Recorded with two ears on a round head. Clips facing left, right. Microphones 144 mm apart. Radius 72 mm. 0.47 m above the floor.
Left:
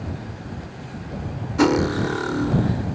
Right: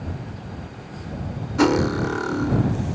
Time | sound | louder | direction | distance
1.6 | cutlery clinking | even | centre (ahead or behind) | ?